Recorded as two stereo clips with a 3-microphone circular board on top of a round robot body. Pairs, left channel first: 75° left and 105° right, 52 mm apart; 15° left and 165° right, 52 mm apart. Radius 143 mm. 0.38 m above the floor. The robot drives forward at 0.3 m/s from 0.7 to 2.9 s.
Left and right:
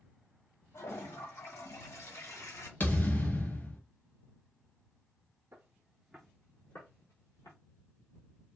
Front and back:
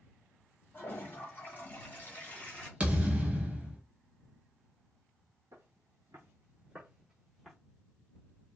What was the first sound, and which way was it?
A toilet flushing, 60° left.